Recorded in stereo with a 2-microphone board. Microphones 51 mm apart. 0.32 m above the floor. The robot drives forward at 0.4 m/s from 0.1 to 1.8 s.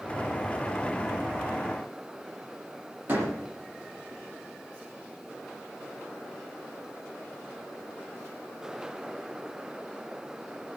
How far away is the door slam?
About 7 m.